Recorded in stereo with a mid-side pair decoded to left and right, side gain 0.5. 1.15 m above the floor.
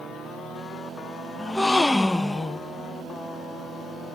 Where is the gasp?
15° left, 1.0 m.